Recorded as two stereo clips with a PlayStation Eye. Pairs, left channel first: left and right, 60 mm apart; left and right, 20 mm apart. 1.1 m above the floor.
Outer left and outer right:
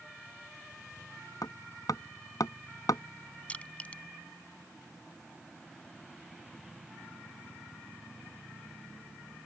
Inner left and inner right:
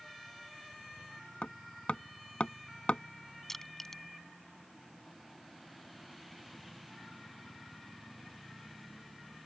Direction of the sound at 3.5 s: 20° left (ahead or behind).